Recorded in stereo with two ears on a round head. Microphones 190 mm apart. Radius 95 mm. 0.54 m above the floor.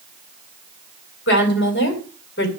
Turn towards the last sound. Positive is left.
turn(degrees=55)  # may be behind; listen again after turning